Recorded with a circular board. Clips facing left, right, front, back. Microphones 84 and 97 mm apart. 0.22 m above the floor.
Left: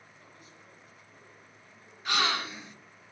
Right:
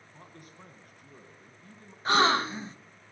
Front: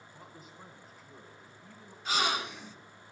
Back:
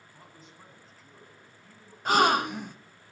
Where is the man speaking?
85° right, 1.9 m.